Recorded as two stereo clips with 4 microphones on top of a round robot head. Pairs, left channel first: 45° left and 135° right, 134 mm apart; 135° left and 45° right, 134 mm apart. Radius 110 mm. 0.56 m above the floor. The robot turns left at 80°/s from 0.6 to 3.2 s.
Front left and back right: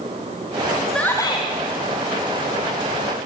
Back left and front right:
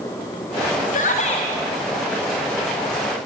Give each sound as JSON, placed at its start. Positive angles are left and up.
{"t": 0.9, "sound": "a shout", "azimuth_deg": 135, "distance_m": 3.0}